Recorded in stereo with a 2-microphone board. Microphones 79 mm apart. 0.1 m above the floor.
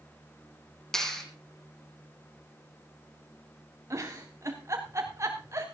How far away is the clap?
About 3.5 m.